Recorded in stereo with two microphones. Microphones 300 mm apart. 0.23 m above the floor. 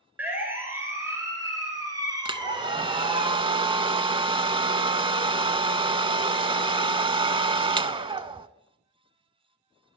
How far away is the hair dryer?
About 0.6 m.